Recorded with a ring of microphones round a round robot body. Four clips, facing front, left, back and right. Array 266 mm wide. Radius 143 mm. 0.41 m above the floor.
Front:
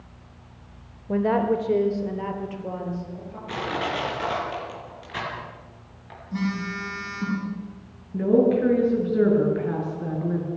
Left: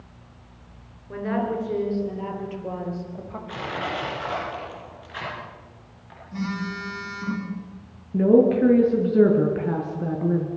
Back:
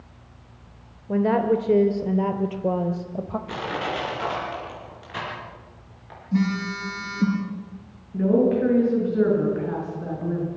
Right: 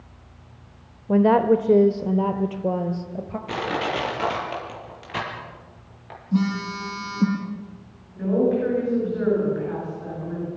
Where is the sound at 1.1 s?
85° right, 1.5 m; by 3.4 s 150° right, 2.0 m.